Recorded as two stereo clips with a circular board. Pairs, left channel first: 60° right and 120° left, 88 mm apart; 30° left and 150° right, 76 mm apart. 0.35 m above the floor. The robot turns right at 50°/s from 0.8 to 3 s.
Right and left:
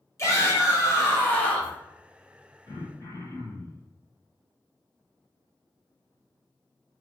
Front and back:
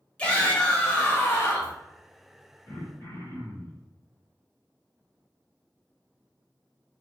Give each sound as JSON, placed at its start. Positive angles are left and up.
{"t": 0.2, "sound": "a shout", "azimuth_deg": -35, "distance_m": 1.4}
{"t": 2.7, "sound": "throat clearing", "azimuth_deg": -25, "distance_m": 1.5}